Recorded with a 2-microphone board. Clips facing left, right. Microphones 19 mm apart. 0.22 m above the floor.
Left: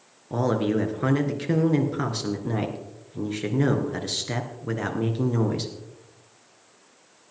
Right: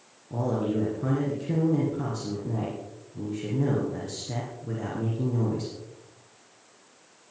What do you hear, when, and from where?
0.3 s a man speaking: 65° left (ahead or behind), 3 m